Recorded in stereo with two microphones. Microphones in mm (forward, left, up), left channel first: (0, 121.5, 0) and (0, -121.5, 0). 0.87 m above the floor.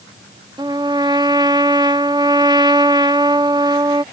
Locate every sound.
0.6 s a trumpet: 15° right (ahead or behind)